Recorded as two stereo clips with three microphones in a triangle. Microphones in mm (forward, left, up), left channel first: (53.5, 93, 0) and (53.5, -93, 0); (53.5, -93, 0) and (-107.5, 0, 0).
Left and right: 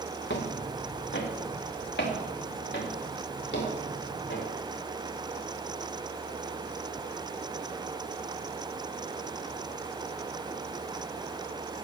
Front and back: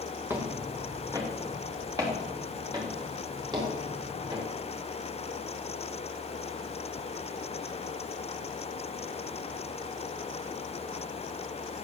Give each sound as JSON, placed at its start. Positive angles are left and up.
{"t": 0.3, "sound": "footsteps", "azimuth_deg": 75, "distance_m": 2.5}